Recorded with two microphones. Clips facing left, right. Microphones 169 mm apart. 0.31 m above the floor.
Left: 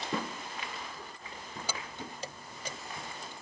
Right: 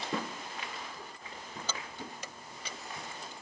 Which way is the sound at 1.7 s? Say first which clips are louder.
Left 1 dB; 10° left (ahead or behind).